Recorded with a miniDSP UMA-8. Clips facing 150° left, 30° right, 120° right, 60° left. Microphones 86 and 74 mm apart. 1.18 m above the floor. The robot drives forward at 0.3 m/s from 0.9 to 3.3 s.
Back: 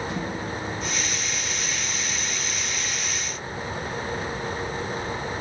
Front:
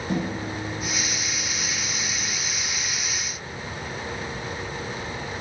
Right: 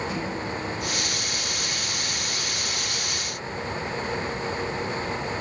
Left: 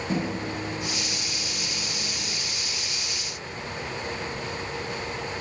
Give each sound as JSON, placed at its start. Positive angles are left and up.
{"t": 0.1, "sound": "a microwave", "azimuth_deg": 10, "distance_m": 1.0}